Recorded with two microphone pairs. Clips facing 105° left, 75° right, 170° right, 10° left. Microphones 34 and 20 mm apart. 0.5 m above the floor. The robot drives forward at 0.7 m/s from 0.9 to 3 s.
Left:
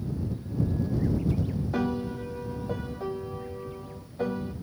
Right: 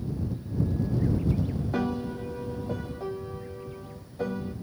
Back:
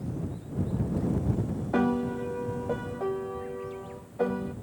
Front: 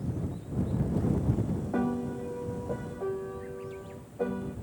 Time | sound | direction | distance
1.7 | a piano | 160° right | 0.6 m